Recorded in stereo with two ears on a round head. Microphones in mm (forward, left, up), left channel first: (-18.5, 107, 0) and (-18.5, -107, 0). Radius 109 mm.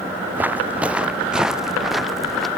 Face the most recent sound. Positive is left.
turn(degrees=0)  # may be behind; listen again after turning